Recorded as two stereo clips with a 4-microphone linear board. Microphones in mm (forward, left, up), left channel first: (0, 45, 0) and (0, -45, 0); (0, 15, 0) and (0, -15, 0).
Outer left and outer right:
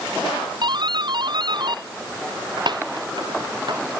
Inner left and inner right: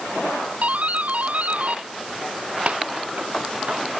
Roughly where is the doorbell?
Right.